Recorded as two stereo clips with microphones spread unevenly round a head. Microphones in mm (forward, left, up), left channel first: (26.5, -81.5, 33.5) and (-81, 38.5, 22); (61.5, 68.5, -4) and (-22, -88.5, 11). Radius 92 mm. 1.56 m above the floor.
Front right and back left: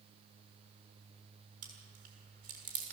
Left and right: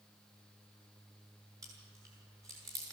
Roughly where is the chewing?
Behind.